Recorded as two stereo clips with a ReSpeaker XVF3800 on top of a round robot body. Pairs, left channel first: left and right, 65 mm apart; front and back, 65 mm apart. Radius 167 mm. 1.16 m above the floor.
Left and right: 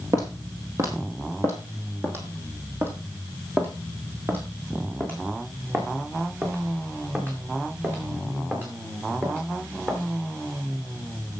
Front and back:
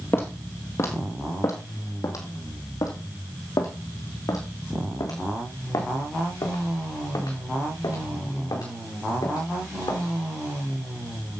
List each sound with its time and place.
0.1 s footsteps: 50° right, 1.7 m; by 10.0 s 25° right, 7 m